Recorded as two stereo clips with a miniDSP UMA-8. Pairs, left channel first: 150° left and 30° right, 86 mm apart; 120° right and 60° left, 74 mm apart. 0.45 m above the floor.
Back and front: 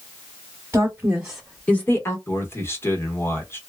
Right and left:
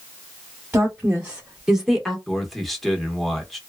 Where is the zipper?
I don't hear a zipper.